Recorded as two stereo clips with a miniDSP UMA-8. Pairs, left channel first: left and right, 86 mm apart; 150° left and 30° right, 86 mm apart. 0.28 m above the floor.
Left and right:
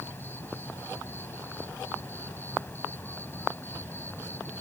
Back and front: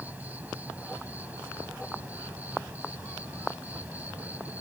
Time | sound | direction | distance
0.0 | an insect | 35° left | ?